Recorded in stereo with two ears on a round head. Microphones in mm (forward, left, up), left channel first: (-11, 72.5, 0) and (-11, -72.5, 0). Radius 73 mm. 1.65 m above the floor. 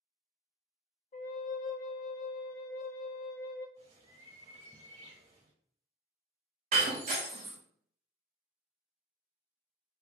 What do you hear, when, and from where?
1.1 s a flute: 45° left (ahead or behind), 0.5 m
3.8 s a bird: 45° right (ahead or behind), 1.7 m
6.7 s breaking glass: 45° right (ahead or behind), 1.0 m